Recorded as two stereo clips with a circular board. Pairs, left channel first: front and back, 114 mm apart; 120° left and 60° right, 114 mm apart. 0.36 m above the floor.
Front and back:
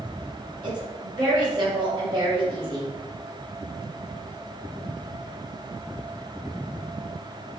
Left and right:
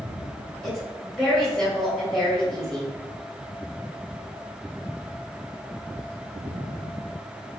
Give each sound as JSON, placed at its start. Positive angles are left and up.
{"t": 0.6, "sound": "a woman speaking", "azimuth_deg": -155, "distance_m": 1.9}